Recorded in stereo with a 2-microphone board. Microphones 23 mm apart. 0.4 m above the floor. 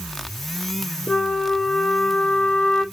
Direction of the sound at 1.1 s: 85° left.